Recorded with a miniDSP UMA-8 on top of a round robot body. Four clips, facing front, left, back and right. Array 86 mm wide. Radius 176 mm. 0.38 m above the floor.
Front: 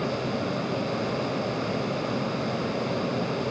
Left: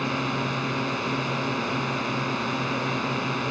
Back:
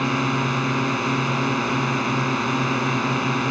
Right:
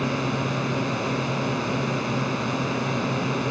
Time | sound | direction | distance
0.0 | a drone | 175° left | ?